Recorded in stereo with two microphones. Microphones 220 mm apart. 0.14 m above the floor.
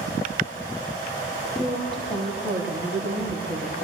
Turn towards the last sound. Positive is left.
turn(degrees=5)  # may be behind; listen again after turning